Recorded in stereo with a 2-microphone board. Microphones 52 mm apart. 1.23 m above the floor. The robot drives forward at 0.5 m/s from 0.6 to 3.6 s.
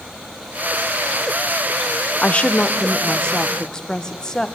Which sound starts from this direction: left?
A woman speaking, at 2.2 s.